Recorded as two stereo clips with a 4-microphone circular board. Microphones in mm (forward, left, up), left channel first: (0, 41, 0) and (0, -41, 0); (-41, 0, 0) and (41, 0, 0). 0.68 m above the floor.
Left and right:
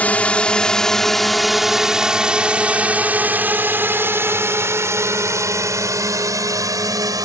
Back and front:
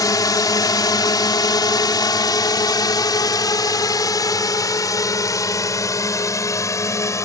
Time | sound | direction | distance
0.0 | a drone | 155° left | ?